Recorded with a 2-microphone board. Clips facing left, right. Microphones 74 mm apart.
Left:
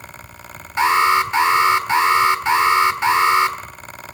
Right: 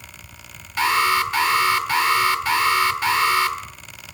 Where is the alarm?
25° left (ahead or behind), 1.5 m.